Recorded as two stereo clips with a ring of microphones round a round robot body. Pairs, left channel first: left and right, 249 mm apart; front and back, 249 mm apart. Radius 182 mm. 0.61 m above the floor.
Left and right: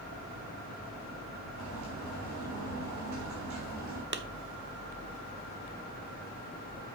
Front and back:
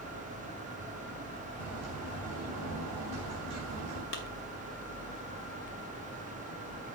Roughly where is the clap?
Ahead right.